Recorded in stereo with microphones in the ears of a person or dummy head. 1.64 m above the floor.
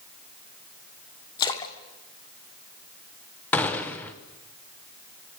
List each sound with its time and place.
1.4 s a splash: 25° left (ahead or behind), 1.5 m
3.5 s a gunshot: 10° left (ahead or behind), 0.8 m